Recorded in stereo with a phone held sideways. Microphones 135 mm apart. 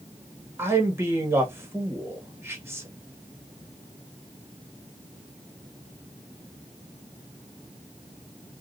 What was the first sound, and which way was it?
A man speaking, 20° right (ahead or behind).